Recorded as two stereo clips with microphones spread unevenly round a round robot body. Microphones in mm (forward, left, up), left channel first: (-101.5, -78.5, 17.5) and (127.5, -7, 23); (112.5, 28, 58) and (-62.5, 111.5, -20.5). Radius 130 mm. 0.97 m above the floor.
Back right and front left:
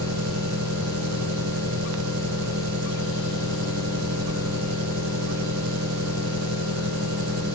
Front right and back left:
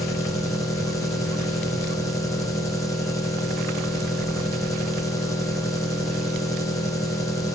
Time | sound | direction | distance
0.0 | an engine running | 25° left | 1.1 m